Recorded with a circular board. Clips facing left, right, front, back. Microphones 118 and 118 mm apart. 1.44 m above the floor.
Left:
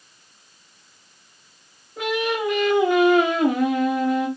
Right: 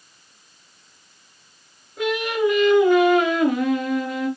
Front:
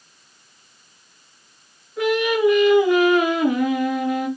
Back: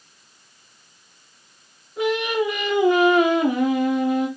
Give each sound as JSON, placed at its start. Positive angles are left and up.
{"t": 2.0, "sound": "singing", "azimuth_deg": 110, "distance_m": 1.3}